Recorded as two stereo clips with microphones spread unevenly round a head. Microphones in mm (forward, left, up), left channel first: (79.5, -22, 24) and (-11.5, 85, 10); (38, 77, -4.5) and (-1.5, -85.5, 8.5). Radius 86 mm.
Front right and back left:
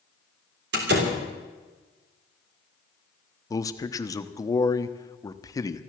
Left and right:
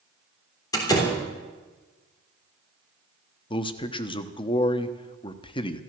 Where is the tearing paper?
No tearing paper in this recording.